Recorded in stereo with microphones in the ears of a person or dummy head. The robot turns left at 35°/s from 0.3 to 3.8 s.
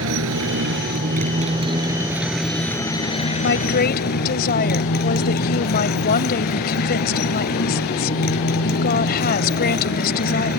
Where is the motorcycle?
110° right; by 10.6 s 130° left.